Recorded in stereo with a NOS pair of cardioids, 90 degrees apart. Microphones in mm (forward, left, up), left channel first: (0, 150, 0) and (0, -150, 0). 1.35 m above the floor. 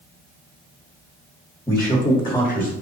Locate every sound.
1.7 s a man speaking: 5° left, 1.4 m; by 2.7 s 20° left, 1.8 m